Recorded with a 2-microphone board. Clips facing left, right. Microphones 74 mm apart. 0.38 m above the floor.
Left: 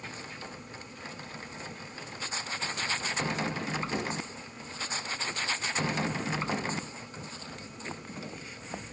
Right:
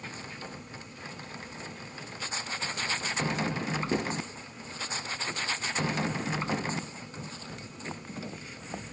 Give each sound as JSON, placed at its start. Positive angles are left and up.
{"t": 3.9, "sound": "writing", "side_deg": -50, "distance_m": 2.5}